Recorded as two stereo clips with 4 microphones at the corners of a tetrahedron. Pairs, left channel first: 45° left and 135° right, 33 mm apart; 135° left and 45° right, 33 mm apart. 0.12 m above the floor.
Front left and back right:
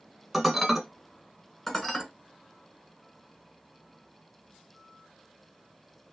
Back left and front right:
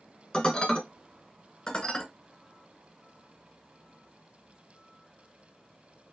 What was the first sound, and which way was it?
Dishes clattering, 135° left.